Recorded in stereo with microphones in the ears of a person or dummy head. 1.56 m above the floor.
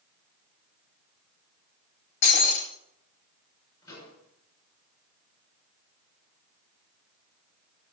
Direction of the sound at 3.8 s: 25° left (ahead or behind).